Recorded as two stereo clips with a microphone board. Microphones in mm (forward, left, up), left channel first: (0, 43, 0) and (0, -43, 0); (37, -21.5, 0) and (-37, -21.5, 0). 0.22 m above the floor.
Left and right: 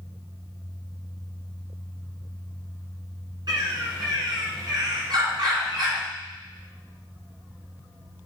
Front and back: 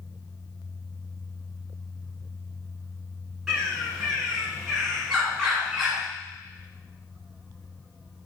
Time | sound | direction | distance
3.5 | a bird | 95° right | 1.7 m